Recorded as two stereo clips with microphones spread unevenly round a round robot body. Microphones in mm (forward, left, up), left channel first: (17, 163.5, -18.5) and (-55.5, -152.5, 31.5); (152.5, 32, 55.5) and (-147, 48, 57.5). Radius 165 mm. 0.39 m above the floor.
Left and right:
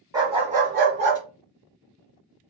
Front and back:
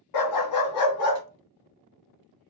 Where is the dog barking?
20° right, 0.8 m; by 1.2 s 45° right, 1.4 m.